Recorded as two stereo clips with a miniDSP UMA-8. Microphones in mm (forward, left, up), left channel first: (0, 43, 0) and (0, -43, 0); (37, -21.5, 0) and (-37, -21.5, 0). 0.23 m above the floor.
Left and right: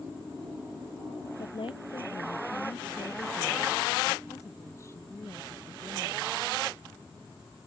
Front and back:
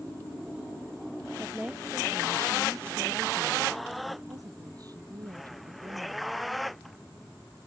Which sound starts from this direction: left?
A woman speaking, at 1.4 s.